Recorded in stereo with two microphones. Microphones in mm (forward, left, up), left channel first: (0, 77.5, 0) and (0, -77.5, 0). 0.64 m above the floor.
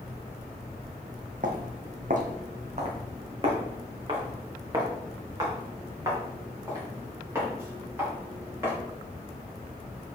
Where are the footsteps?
60° right (ahead or behind), 1.1 m; by 8.8 s 15° right (ahead or behind), 4.5 m.